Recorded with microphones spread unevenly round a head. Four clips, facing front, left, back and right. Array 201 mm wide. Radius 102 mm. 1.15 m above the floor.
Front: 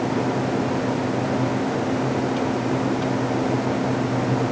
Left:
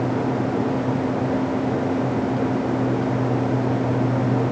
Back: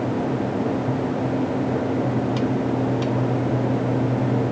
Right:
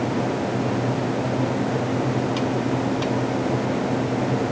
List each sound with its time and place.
Only background noise.